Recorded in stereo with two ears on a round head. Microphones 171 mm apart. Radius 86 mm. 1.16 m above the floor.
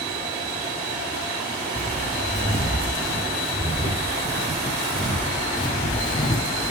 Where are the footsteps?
10° left (ahead or behind), 2.5 m; by 6.7 s 25° left (ahead or behind), 1.3 m.